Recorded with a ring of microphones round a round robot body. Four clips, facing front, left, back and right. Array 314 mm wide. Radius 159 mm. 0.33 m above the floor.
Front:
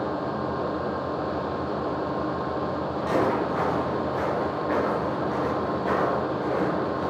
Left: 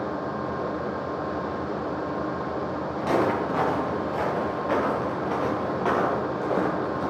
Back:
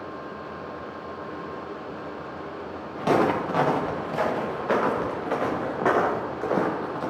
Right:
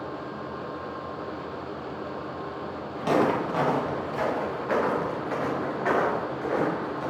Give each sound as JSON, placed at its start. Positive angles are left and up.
{"t": 3.0, "sound": "footsteps", "azimuth_deg": -170, "distance_m": 5.5}